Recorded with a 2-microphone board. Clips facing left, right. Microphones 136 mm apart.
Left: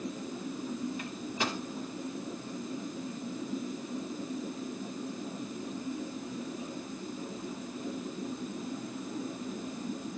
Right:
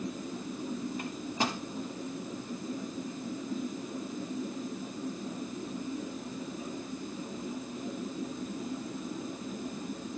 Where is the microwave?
40° right (ahead or behind), 1.2 m.